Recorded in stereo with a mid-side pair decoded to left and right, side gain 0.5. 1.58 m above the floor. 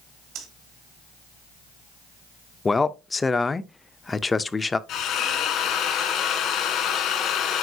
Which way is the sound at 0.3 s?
70° right.